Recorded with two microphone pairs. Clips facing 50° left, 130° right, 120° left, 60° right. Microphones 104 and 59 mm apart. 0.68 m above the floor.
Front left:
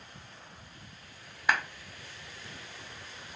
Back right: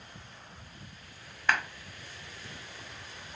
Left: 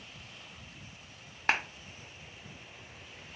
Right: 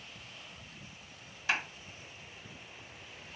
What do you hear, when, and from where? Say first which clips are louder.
1.5 s a clap: even, left 3 dB; 125° left, 0.7 m